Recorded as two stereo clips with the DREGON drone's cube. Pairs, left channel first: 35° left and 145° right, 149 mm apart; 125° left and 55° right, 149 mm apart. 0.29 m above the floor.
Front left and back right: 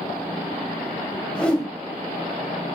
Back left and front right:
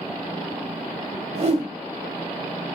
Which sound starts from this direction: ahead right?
A whoosh, at 1.4 s.